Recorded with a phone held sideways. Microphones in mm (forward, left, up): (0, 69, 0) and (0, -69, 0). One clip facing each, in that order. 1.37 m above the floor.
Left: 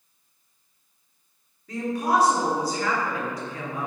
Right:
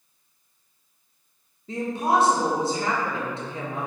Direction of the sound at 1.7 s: 25° right (ahead or behind).